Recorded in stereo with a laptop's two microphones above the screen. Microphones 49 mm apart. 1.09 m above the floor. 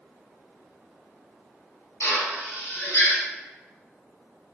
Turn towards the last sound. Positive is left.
turn(degrees=75)  # may be behind; listen again after turning